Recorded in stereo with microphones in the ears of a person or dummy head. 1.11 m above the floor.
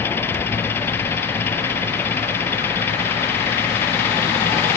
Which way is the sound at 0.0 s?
10° left (ahead or behind).